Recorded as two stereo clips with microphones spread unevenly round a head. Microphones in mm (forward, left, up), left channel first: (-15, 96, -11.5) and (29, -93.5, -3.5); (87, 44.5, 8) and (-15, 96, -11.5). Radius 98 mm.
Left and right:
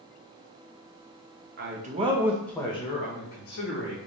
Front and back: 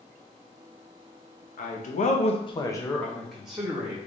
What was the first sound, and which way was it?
A man speaking, 35° right.